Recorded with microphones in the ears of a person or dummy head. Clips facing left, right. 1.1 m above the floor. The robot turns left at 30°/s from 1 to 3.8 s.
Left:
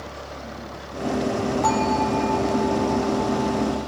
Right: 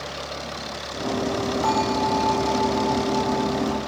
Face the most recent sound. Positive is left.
turn(degrees=-75)